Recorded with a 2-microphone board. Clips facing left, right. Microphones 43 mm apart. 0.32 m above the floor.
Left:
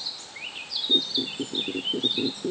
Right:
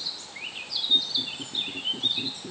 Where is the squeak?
85° left.